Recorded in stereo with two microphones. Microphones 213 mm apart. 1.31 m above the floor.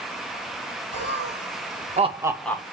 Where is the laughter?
55° right (ahead or behind), 2 m; by 2.6 s 20° left (ahead or behind), 0.7 m.